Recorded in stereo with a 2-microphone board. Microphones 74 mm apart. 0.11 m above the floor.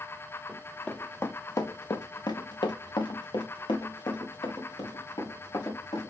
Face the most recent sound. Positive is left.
turn(degrees=65)  # may be behind; listen again after turning